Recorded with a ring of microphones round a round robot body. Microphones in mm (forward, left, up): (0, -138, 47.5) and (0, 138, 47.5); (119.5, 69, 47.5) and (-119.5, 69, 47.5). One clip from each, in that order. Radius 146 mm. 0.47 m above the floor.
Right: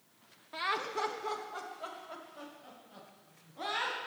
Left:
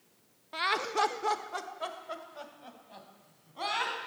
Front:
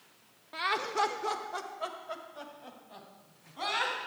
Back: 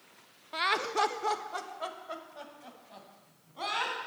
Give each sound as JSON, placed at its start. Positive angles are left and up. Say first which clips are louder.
{"t": 0.5, "sound": "laughter", "louder": "left 5 dB, back 2 dB", "azimuth_deg": 155, "distance_m": 0.8}